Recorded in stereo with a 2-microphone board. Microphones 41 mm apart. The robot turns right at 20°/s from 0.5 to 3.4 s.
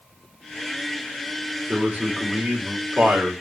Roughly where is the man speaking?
Behind right.